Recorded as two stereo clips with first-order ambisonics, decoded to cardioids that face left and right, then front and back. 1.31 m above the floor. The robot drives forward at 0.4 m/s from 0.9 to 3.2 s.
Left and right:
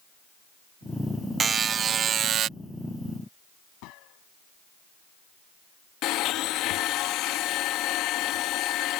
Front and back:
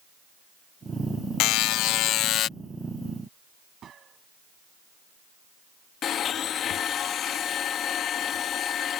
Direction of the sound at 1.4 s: 25° right.